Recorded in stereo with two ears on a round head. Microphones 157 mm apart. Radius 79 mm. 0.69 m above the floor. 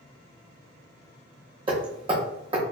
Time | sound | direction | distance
1.7 | hammering | 30° right (ahead or behind) | 1.1 m